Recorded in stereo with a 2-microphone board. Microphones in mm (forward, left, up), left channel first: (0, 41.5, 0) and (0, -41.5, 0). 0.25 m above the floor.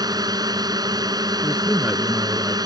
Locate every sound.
0.0 s a drone: 55° right (ahead or behind)
1.4 s a man speaking: 15° right (ahead or behind)